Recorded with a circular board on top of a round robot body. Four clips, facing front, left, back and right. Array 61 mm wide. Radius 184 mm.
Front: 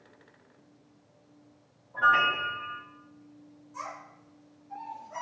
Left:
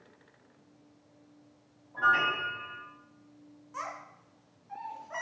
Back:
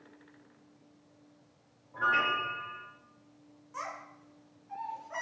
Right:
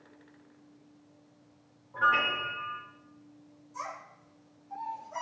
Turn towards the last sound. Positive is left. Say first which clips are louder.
# left 1 dB, even
turn(degrees=125)